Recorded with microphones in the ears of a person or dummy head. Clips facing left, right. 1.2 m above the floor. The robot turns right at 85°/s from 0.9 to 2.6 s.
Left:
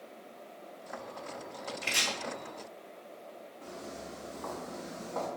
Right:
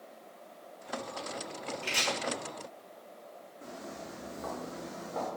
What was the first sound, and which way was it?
Chopping, 35° left (ahead or behind).